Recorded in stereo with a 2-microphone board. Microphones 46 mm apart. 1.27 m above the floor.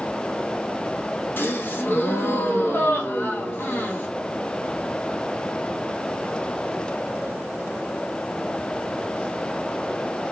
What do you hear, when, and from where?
1.4 s a gasp: 50° left (ahead or behind), 0.9 m